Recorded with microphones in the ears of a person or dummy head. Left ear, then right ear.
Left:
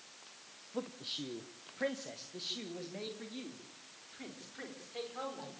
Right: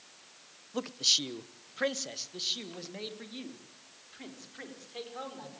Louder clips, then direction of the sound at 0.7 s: Right 13 dB; 85° right.